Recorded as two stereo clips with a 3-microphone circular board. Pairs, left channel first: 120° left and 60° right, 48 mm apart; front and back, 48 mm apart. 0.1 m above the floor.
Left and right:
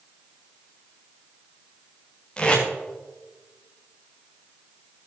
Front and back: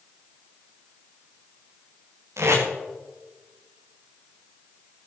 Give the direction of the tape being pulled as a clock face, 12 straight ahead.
6 o'clock.